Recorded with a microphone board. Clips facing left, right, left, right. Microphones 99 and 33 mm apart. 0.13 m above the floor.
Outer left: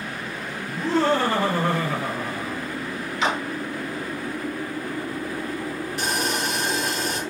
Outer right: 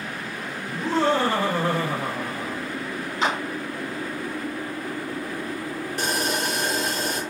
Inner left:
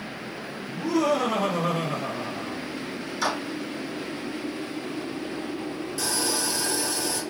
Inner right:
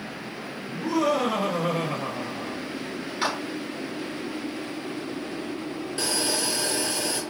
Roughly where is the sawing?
Right.